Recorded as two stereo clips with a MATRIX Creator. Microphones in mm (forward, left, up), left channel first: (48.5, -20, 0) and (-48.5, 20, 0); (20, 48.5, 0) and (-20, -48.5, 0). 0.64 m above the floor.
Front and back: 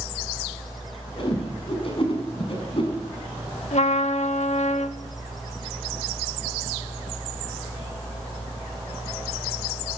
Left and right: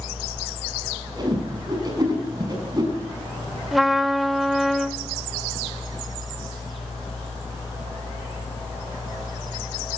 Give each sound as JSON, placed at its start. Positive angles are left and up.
{"t": 1.2, "sound": "a whoosh", "azimuth_deg": -60, "distance_m": 5.5}
{"t": 3.7, "sound": "a trumpet", "azimuth_deg": -25, "distance_m": 0.9}